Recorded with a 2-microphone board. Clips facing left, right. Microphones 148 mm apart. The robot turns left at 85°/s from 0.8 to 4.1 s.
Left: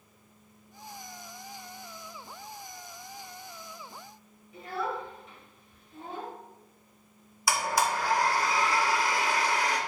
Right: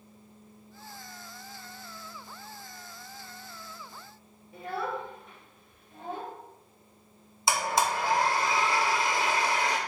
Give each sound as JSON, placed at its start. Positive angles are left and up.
{"t": 4.5, "sound": "a child speaking", "side_deg": -55, "distance_m": 1.0}
{"t": 7.5, "sound": "a blender", "side_deg": -25, "distance_m": 0.6}